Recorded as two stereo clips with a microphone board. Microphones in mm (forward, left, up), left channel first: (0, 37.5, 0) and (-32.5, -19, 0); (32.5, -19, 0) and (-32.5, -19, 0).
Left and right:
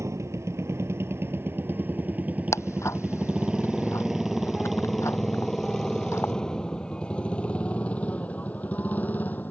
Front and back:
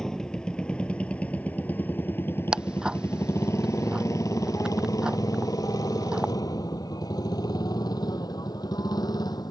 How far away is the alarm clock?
I don't hear an alarm clock.